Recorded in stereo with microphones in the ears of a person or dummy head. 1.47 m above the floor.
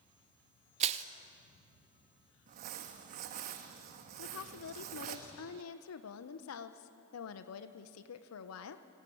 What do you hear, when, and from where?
0.8 s crushing: 30° right (ahead or behind), 1.0 m
2.5 s crumpling: 50° right (ahead or behind), 1.4 m
4.2 s a woman speaking: 85° left, 1.0 m